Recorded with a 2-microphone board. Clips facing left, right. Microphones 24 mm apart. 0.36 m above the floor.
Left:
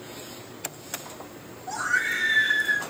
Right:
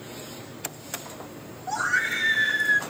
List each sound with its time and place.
1.7 s a scream: 20° right (ahead or behind), 1.7 m; by 2.8 s 10° left (ahead or behind), 1.7 m